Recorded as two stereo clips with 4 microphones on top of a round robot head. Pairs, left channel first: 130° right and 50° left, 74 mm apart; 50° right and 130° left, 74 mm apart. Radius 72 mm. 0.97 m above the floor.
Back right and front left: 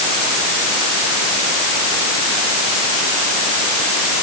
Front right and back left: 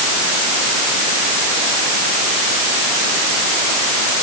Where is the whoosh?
I don't hear a whoosh.